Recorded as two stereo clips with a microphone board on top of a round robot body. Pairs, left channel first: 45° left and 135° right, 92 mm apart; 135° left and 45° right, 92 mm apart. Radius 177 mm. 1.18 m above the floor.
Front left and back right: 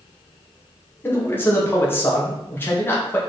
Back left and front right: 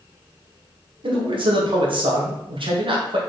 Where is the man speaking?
25° right, 2.5 m.